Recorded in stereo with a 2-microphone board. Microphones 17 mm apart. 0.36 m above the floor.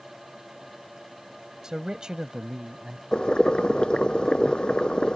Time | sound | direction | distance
1.6 | a man speaking | 45° right (ahead or behind) | ?
3.1 | boiling | 80° left | ?